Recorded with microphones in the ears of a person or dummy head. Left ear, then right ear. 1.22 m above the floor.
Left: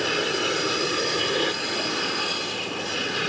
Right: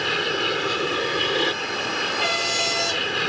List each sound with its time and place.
0.0 s an aircraft: 15° right (ahead or behind)